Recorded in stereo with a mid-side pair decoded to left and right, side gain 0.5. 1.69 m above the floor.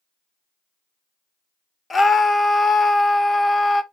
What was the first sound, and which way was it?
A scream, 30° left.